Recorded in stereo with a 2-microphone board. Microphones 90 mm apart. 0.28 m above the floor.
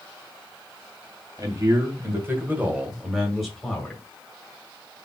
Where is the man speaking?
40° right (ahead or behind), 2.0 m; by 4.0 s 15° left (ahead or behind), 1.7 m.